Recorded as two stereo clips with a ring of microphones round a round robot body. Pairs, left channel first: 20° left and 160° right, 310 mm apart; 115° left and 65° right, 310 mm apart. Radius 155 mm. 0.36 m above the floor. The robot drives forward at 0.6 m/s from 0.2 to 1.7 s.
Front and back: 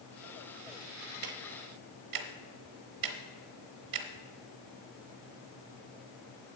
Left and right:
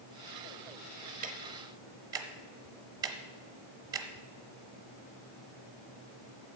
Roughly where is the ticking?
Behind right.